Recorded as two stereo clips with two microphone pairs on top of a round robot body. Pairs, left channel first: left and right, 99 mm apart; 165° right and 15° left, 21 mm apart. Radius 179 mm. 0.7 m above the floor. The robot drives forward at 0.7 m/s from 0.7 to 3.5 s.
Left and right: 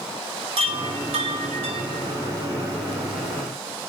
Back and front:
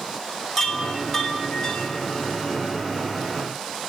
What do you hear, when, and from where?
0.6 s a chime: 75° right, 1.6 m; by 3.9 s 135° right, 2 m